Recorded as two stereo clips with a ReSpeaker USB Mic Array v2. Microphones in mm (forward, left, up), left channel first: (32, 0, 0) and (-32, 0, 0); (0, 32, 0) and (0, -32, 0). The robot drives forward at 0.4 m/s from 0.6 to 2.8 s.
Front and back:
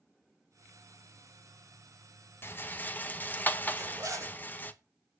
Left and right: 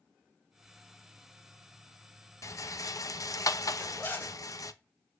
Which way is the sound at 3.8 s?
150° left.